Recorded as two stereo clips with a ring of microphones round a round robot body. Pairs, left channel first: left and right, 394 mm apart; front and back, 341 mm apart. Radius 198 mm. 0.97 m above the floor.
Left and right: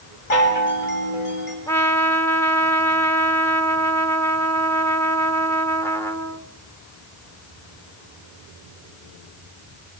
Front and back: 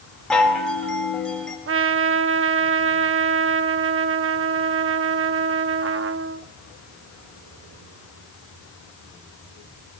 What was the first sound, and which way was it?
A chime, 85° left.